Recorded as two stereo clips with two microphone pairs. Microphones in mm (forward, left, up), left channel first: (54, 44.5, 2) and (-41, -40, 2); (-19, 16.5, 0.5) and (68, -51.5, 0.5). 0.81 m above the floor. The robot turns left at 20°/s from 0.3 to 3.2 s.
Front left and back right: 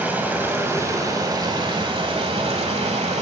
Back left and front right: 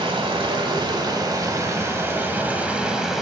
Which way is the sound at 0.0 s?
65° right.